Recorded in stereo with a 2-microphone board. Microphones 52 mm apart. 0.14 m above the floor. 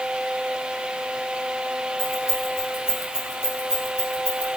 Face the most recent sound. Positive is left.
turn(degrees=-75)  # may be behind; listen again after turning